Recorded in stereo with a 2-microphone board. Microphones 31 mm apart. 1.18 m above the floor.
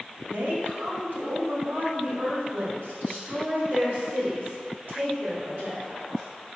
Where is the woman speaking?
70° right (ahead or behind), 2.5 m; by 6.2 s 60° right (ahead or behind), 5 m.